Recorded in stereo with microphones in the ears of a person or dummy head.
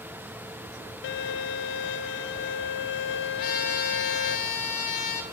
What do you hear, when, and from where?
1.0 s a violin: 55° left (ahead or behind), 0.6 m
3.4 s a trumpet: 45° left (ahead or behind), 1.8 m